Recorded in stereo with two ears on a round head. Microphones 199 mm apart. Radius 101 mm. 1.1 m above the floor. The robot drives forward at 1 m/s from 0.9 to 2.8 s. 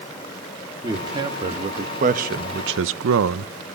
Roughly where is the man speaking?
Centre.